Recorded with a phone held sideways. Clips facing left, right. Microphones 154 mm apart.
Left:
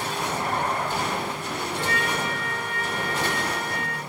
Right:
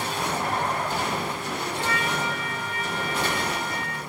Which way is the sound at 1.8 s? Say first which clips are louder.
Left 1 dB; 65° left (ahead or behind).